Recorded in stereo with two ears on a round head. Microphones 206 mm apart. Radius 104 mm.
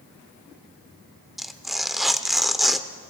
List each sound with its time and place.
1.4 s tearing paper: centre (ahead or behind), 0.6 m